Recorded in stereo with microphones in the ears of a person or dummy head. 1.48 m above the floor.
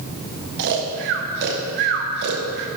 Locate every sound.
0.6 s snoring: 55° right (ahead or behind), 0.8 m